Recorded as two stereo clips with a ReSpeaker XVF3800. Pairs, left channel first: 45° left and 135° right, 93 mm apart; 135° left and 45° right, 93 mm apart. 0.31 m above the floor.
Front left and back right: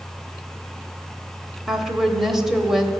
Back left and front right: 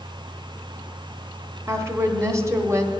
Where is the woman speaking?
50° right, 1.0 m.